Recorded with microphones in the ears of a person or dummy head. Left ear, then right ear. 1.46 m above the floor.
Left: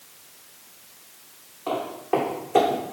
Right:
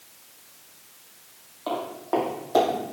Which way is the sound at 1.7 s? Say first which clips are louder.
Left 2 dB; 40° right (ahead or behind).